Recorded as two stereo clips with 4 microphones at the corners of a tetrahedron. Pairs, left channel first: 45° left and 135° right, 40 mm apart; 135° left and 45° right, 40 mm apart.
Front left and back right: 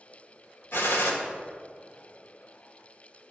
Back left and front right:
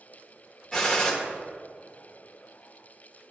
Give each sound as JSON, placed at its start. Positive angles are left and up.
{"t": 0.7, "sound": "a gunshot", "azimuth_deg": 60, "distance_m": 1.3}